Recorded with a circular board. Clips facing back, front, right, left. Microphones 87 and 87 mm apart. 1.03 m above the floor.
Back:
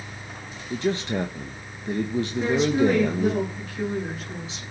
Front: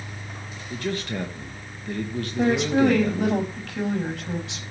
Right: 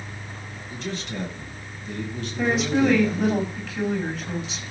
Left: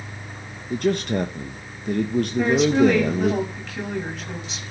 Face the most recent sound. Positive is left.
turn(degrees=0)